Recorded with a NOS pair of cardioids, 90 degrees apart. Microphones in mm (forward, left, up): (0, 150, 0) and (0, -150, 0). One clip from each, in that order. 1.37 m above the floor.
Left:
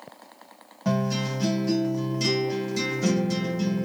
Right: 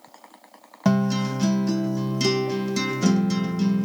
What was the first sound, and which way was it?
A guitar, 50° right.